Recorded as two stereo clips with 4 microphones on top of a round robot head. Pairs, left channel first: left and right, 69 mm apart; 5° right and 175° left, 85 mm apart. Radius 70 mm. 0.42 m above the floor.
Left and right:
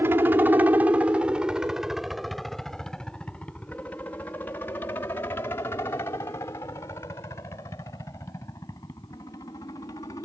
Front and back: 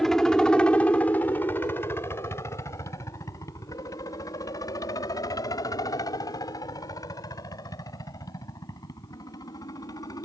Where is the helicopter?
85° right; by 10.3 s 40° left.